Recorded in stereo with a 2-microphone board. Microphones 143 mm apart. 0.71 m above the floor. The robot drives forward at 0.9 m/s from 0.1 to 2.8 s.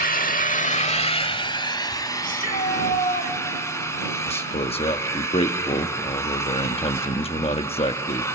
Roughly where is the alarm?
No alarm in this recording.